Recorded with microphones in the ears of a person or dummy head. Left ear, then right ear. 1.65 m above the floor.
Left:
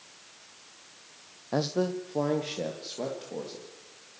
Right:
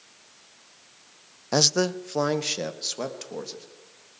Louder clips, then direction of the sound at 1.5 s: Right 7 dB; 80° right.